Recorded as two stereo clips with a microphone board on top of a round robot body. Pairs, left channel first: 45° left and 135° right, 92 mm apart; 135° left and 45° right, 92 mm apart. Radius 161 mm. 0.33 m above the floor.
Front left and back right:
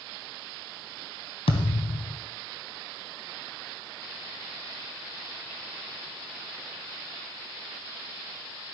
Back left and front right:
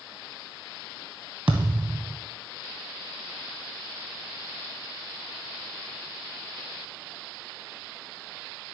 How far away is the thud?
About 1.6 m.